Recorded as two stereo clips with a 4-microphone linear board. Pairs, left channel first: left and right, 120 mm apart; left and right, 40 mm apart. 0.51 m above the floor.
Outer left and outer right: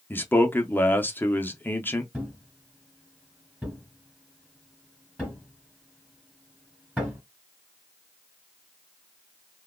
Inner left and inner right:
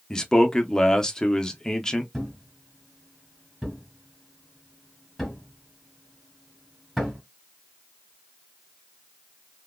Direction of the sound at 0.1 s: 15° left (ahead or behind).